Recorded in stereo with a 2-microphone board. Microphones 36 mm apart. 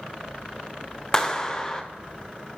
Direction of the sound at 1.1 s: 15° left (ahead or behind).